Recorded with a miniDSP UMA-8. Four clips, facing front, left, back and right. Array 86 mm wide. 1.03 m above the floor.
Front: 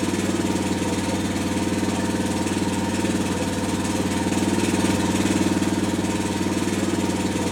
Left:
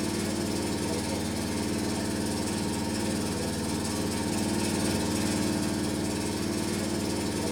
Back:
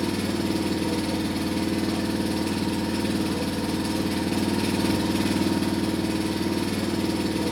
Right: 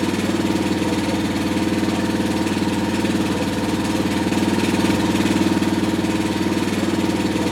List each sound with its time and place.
0.0 s an engine running: 70° right, 0.9 m